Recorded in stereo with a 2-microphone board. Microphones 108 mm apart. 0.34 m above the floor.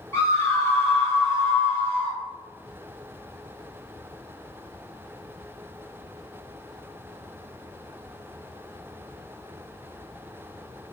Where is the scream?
25° left (ahead or behind), 1.5 m; by 2.2 s 15° left (ahead or behind), 1.8 m.